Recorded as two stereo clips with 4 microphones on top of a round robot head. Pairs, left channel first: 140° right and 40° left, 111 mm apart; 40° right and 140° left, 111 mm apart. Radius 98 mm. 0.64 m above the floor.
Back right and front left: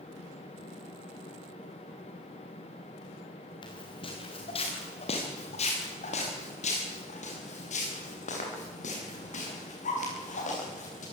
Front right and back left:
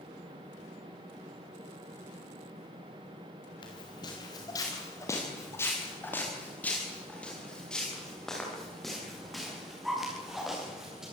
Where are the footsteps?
90° right, 5 m; by 11.0 s 135° right, 11.5 m.